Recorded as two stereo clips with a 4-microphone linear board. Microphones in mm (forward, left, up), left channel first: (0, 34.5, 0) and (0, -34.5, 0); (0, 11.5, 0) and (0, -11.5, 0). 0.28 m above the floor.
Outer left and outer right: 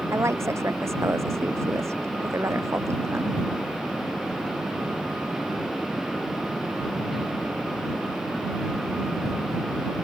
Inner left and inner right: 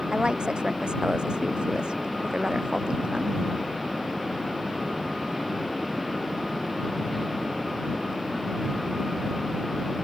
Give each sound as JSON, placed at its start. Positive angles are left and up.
{"t": 0.1, "sound": "a woman speaking", "side_deg": -40}